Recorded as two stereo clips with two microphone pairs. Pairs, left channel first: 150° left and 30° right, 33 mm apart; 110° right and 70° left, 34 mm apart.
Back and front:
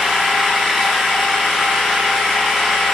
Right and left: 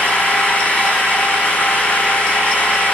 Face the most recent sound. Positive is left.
turn(degrees=-130)